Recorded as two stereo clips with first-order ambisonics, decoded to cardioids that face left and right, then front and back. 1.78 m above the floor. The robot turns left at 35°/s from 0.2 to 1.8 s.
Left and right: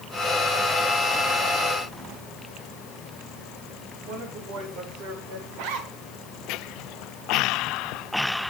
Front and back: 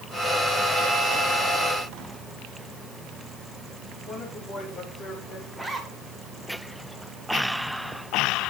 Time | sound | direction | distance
4.0 | a woman speaking | 65° right | 5 m
5.5 | a zipper | 90° right | 1.9 m